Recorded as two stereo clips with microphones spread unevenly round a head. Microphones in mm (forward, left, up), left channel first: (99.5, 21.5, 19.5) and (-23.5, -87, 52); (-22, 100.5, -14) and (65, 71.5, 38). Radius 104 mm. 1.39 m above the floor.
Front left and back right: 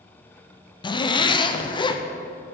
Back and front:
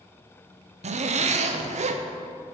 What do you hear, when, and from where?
0.8 s a zipper: 10° right, 0.6 m